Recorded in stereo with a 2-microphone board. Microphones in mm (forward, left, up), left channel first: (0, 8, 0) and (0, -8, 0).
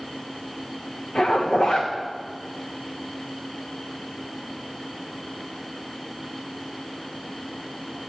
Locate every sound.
1.1 s a zipper: 80° left, 3.5 m